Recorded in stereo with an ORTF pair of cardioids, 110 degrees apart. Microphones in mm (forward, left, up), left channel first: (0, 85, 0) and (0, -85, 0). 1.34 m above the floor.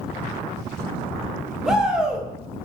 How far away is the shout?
About 0.5 m.